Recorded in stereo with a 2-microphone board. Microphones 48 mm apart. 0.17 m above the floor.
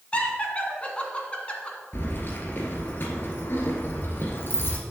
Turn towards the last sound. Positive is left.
turn(degrees=50)  # may be behind; listen again after turning